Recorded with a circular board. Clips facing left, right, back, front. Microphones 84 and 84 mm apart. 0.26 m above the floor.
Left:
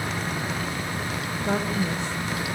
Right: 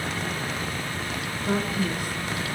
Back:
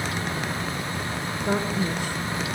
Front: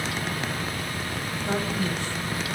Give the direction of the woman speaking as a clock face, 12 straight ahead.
8 o'clock.